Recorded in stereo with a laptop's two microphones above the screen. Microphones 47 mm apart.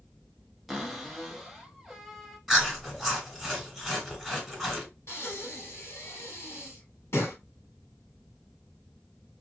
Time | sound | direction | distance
0.7 | a cupboard door | centre (ahead or behind) | 1.1 m
2.5 | chewing | 5° right (ahead or behind) | 1.9 m
5.1 | breathing | 65° left (ahead or behind) | 1.8 m